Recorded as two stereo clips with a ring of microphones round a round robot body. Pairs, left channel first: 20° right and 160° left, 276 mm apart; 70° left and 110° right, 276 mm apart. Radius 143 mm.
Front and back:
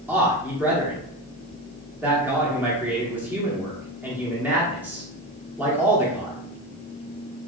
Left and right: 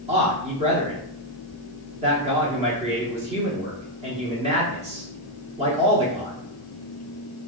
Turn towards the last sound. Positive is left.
turn(degrees=-130)